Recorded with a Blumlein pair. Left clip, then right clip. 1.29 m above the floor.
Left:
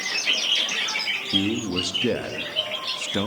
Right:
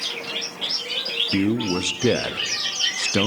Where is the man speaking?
15° right, 0.7 m.